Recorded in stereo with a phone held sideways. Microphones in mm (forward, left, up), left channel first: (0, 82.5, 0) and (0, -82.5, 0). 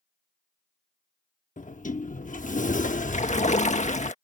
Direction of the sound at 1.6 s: 50° left (ahead or behind).